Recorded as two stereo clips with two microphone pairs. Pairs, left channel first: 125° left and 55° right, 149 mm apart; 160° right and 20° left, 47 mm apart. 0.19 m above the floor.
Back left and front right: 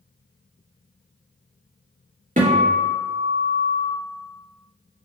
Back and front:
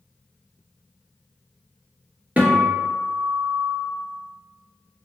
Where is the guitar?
40° right, 2.5 m.